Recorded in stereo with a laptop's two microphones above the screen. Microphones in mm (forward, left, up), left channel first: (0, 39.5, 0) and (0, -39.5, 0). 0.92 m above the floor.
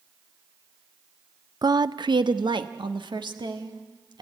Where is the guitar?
I don't hear a guitar.